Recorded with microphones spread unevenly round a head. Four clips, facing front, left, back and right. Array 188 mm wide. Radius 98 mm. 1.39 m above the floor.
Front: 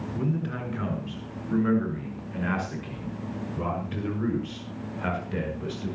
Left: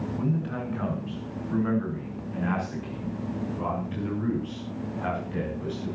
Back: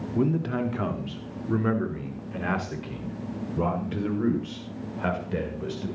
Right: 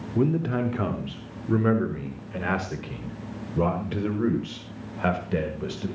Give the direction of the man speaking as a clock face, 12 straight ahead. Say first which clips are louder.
Right 8 dB, back 6 dB; 4 o'clock.